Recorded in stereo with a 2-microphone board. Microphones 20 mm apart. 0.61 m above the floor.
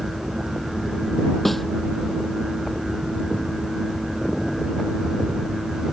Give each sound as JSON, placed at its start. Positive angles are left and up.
{"t": 1.4, "sound": "a snare drum", "side_deg": 5}